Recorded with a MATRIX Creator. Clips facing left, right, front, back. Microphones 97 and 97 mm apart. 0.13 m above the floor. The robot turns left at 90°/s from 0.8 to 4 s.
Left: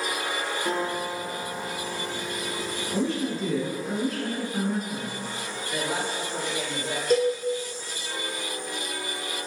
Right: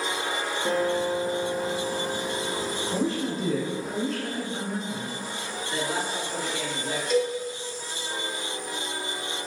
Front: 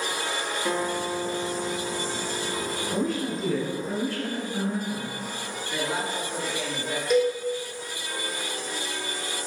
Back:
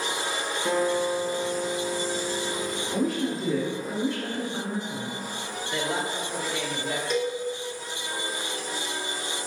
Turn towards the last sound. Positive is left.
turn(degrees=85)